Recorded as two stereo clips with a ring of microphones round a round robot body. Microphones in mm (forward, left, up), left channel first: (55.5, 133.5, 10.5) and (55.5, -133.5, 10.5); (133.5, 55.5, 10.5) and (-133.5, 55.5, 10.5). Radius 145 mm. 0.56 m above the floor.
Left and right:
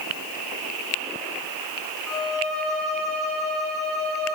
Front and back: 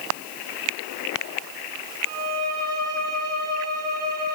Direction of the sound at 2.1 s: 55° right.